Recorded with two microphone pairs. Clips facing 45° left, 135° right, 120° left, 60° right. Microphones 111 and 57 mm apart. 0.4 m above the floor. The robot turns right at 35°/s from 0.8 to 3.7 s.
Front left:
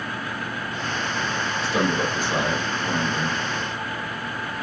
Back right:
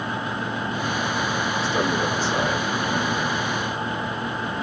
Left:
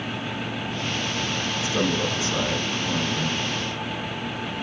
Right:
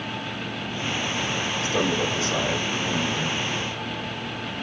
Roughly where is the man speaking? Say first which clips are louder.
Front left 2 dB, even; ahead right.